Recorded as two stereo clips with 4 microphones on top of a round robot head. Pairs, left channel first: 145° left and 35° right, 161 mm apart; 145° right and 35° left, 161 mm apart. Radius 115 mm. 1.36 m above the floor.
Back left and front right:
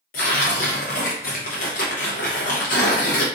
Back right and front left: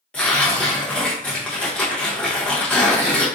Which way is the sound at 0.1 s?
135° left.